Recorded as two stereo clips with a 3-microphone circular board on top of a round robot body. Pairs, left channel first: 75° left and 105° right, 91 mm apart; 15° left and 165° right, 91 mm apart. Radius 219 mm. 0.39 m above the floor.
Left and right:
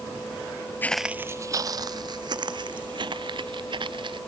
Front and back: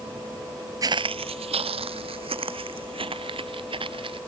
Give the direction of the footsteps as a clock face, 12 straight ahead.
7 o'clock.